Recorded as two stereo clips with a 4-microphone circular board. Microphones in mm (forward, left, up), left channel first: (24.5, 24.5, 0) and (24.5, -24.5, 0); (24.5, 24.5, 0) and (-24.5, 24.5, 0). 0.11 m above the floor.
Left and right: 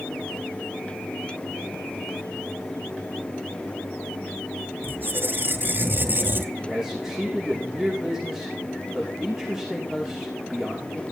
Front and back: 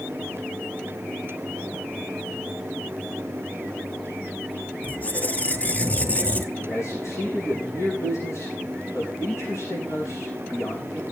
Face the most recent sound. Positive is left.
turn(degrees=-5)